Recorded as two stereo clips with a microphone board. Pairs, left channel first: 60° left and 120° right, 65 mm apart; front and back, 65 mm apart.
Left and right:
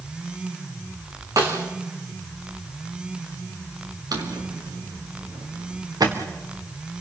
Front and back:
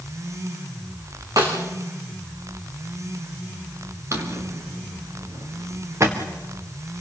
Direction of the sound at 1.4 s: 150° right.